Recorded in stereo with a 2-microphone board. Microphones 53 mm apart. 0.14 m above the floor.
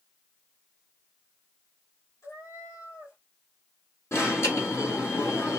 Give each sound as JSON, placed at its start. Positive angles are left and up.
{"t": 2.2, "sound": "a cat meowing", "side_deg": 65, "distance_m": 2.0}
{"t": 4.1, "sound": "an alarm", "side_deg": 60, "distance_m": 3.5}